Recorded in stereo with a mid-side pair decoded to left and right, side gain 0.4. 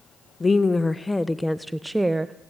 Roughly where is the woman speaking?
Ahead left.